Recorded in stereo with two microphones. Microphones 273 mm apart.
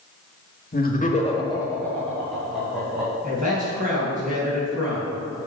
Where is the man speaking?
30° right (ahead or behind), 2.5 m.